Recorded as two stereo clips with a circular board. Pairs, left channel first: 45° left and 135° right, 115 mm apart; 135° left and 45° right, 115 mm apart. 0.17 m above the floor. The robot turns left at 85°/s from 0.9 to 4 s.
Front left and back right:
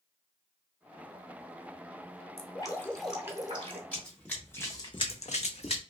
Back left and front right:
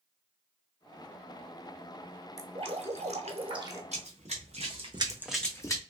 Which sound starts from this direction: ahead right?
Running footsteps, at 3.9 s.